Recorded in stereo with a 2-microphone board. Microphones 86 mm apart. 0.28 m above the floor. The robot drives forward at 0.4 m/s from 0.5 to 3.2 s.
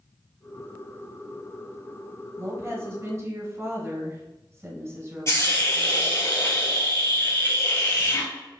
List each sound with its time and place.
2.4 s a woman speaking: 30° right (ahead or behind), 1.1 m
5.3 s a hiss: 40° left (ahead or behind), 2 m